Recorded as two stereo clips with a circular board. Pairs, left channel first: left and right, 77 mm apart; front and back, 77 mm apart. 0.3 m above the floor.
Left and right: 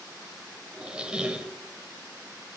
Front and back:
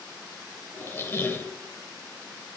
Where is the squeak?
25° right, 0.6 m.